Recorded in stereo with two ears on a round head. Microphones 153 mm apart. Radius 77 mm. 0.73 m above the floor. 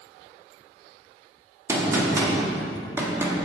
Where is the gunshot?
15° right (ahead or behind), 1.2 m.